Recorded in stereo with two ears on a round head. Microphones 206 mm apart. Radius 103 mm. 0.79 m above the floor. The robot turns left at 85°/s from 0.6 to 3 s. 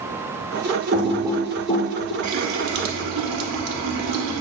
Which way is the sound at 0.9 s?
30° right (ahead or behind).